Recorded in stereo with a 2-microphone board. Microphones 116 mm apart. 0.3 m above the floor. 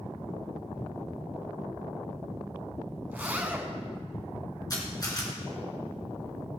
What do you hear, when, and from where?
3.1 s a zipper: 15° right (ahead or behind), 1.5 m
4.7 s a camera shutter: 35° left (ahead or behind), 3.5 m